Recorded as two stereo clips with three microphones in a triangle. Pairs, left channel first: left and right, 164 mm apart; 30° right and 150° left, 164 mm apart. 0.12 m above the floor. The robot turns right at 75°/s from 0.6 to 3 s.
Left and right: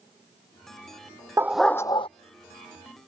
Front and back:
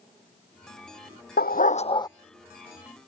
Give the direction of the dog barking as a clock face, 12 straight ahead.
1 o'clock.